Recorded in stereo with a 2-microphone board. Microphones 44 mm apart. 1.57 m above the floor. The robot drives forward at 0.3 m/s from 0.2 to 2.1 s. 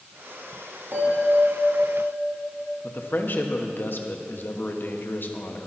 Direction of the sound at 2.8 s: 50° left (ahead or behind).